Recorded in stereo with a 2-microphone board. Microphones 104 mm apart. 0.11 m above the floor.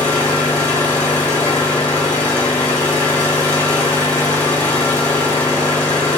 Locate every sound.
0.0 s an engine running: 15° left (ahead or behind), 1.1 m